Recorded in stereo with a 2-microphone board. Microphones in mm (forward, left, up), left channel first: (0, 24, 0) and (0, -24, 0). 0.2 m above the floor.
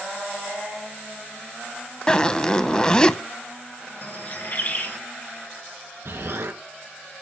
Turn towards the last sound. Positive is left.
turn(degrees=-70)  # may be behind; listen again after turning